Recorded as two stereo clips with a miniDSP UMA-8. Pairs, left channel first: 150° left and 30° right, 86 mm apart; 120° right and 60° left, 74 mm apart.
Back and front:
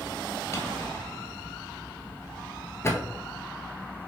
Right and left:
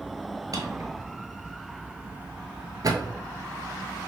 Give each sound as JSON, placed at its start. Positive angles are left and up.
{"t": 0.5, "sound": "a drawer", "azimuth_deg": 95, "distance_m": 0.6}